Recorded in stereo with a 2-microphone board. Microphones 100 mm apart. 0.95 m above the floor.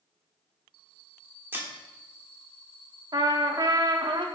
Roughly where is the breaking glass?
Right.